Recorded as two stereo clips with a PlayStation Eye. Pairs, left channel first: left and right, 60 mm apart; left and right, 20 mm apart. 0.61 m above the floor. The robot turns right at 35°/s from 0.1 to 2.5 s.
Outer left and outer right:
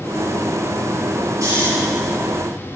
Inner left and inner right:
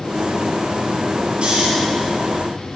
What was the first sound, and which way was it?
Snoring, 55° right (ahead or behind).